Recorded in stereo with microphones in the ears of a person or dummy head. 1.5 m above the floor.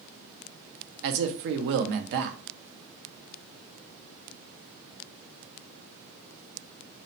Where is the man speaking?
60° right (ahead or behind), 0.5 m.